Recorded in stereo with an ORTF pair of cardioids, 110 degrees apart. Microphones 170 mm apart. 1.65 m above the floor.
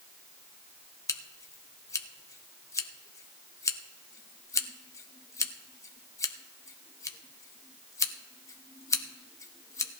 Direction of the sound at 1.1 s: 20° left.